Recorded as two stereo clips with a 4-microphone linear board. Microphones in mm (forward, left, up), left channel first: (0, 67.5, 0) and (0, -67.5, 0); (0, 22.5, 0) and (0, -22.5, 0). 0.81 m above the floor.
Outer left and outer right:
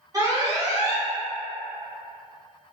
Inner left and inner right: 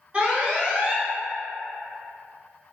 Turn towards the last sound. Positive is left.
turn(degrees=-25)  # may be behind; listen again after turning